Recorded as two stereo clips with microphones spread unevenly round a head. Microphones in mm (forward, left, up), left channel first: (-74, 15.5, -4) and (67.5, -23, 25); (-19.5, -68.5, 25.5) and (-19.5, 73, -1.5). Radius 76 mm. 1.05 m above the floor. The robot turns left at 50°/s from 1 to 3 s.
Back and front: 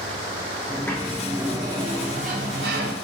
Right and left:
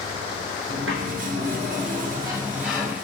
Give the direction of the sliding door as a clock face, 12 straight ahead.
9 o'clock.